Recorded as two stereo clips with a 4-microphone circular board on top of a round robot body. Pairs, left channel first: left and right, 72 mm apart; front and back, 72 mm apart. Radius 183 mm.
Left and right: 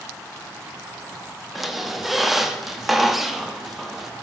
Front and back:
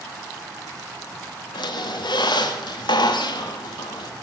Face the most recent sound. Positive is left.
turn(degrees=0)